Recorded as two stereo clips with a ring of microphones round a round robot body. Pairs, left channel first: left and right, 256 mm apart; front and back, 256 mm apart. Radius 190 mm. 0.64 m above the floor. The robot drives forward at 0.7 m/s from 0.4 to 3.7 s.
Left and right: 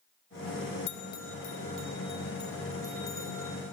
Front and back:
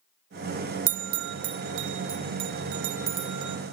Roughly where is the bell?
Behind left.